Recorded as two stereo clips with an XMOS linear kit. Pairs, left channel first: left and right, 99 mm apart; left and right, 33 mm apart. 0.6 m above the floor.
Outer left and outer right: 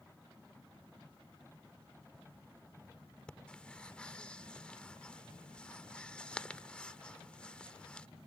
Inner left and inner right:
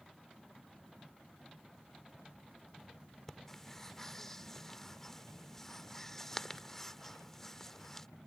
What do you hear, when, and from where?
3.3 s breathing: 10° left (ahead or behind)